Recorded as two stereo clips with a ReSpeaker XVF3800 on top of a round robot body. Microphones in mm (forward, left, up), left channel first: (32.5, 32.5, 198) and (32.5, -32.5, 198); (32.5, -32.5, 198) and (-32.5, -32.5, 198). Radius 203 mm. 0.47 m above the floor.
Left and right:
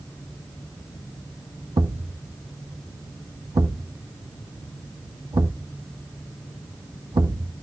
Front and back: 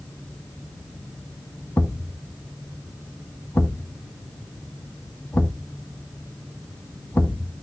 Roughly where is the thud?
Ahead right.